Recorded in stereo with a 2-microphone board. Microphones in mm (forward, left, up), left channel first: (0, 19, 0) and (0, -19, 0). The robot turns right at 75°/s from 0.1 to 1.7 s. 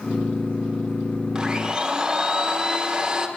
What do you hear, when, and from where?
1.4 s a blender: 20° right (ahead or behind), 0.7 m